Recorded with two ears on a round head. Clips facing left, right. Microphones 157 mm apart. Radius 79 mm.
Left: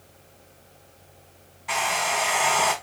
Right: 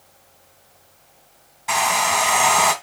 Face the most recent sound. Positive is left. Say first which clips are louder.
# right 5 dB
turn(degrees=-80)